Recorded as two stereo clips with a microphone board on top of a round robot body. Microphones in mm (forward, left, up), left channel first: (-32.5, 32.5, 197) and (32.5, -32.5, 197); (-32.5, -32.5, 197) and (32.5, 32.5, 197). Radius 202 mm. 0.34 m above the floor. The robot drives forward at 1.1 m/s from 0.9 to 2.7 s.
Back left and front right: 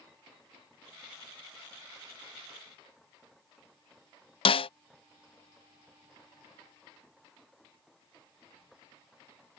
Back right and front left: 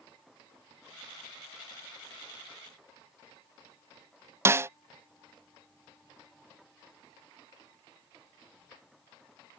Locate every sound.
4.5 s a snare drum: 110° left